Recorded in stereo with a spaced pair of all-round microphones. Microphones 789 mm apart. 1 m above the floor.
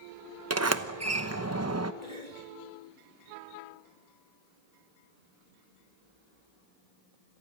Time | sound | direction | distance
0.5 | a sliding door | 20° right (ahead or behind) | 0.9 m
2.0 | a cough | 55° right (ahead or behind) | 3.5 m